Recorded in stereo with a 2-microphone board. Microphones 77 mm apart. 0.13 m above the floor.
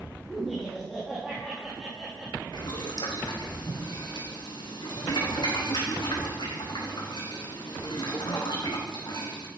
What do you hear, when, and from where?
0.3 s laughter: centre (ahead or behind), 5.5 m
2.5 s boiling: 65° left (ahead or behind), 4 m